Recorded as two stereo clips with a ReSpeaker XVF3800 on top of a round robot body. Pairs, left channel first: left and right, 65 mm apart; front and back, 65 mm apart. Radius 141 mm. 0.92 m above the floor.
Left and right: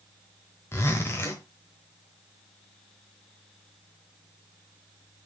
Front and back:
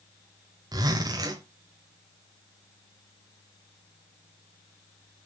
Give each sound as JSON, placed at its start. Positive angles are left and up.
{"t": 0.7, "sound": "a zipper", "azimuth_deg": 150, "distance_m": 1.1}